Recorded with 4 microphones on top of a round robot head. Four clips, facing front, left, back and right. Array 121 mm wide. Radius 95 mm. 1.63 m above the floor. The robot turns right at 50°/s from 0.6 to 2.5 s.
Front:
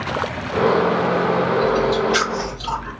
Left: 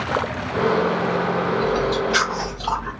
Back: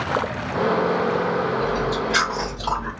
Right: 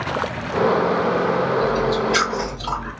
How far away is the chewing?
About 1.8 m.